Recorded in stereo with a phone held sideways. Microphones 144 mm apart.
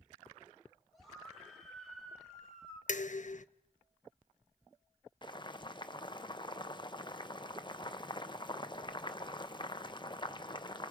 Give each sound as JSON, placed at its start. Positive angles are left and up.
{"t": 0.9, "sound": "a scream", "side_deg": 0, "distance_m": 4.0}
{"t": 2.9, "sound": "dishes clattering", "side_deg": 60, "distance_m": 0.6}
{"t": 5.2, "sound": "boiling", "side_deg": 35, "distance_m": 0.8}